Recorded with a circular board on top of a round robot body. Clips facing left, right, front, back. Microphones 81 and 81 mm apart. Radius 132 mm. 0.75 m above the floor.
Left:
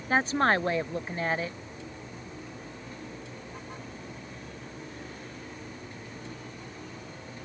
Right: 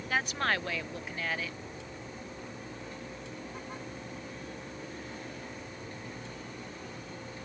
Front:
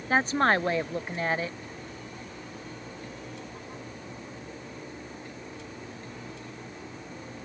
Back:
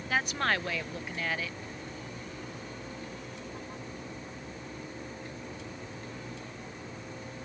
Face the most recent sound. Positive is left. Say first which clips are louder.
# left 7 dB, front 6 dB
turn(degrees=45)